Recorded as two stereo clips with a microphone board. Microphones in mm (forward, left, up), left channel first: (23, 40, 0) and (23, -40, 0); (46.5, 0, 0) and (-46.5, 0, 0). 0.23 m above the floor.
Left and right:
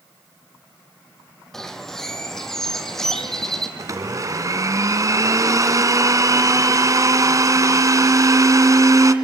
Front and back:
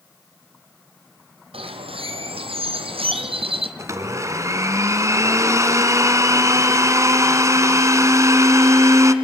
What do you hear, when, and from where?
1.5 s a bird: 175° left, 1.7 m
3.8 s a blender: 130° right, 1.3 m